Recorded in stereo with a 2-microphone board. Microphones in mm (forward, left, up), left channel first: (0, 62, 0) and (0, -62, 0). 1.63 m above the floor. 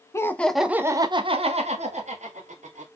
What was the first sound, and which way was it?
Laughter, 25° left (ahead or behind).